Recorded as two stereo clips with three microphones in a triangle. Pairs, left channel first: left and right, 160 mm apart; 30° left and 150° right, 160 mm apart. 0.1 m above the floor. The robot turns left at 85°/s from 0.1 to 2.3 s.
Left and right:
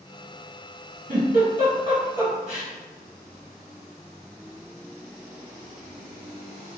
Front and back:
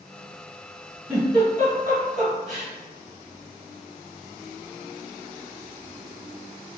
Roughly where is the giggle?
Right.